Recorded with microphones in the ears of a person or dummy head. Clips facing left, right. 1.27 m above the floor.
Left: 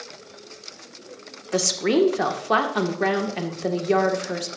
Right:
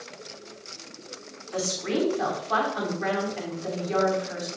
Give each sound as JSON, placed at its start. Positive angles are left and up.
{"t": 1.5, "sound": "a woman speaking", "side_deg": 75, "distance_m": 1.4}